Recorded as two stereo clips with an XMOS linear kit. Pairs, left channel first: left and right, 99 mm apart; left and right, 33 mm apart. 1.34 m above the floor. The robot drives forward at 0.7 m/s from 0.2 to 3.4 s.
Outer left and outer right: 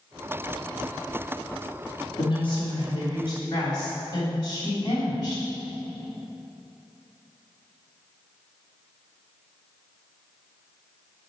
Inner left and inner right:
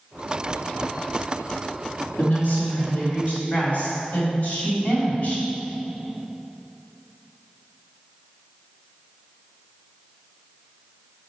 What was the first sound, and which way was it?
A woman speaking, 60° left (ahead or behind).